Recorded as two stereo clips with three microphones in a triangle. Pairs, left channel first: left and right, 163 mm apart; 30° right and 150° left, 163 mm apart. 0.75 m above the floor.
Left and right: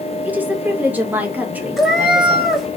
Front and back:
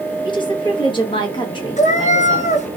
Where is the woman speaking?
20° right, 0.9 m.